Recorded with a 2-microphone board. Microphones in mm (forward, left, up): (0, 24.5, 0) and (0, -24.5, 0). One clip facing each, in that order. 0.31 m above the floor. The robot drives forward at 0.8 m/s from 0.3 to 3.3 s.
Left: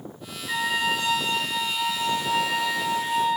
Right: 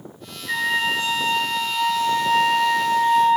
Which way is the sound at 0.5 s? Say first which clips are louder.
Right 3 dB; 20° right (ahead or behind).